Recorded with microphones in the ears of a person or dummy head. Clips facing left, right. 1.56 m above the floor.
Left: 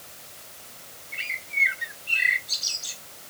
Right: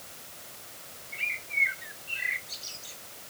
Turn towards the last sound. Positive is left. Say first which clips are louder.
# left 3 dB
turn(degrees=90)